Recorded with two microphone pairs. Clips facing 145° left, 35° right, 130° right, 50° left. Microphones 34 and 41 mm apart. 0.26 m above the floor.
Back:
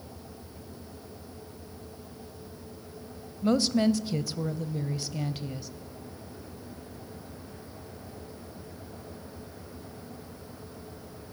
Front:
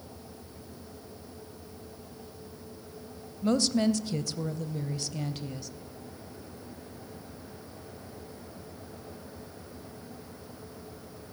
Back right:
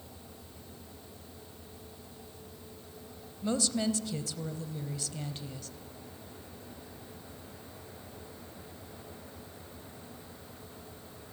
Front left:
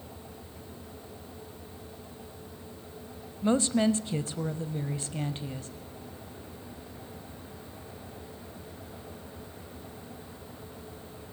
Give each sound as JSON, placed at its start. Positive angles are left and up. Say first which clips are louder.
{"t": 3.4, "sound": "a woman speaking", "louder": "back 2 dB, front left 6 dB", "azimuth_deg": 80, "distance_m": 1.2}